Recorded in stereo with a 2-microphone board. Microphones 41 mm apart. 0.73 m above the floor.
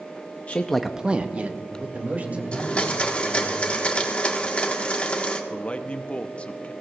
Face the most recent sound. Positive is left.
turn(degrees=30)  # may be behind; listen again after turning